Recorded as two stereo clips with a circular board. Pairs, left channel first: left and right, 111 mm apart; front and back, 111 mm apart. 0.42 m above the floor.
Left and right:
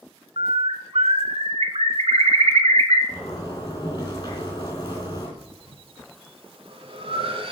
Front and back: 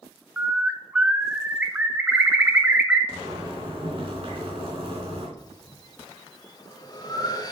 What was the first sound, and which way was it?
A bird, 100° right.